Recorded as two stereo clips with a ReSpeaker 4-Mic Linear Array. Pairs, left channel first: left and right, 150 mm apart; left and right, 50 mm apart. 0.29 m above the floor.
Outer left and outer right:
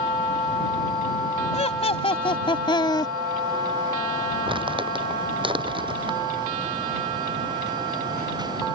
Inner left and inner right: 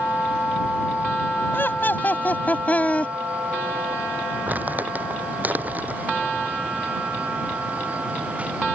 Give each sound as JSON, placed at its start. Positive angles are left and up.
{"t": 1.5, "sound": "laughter", "side_deg": 45}
{"t": 4.5, "sound": "crumpling", "side_deg": -35}